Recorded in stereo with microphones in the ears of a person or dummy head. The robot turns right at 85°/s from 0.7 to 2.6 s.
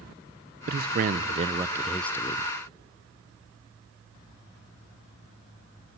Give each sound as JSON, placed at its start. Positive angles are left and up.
{"t": 0.7, "sound": "a man speaking", "azimuth_deg": -105, "distance_m": 0.6}